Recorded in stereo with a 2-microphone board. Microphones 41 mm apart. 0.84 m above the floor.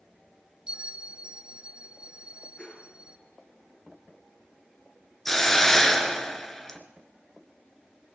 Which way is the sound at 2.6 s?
30° left (ahead or behind).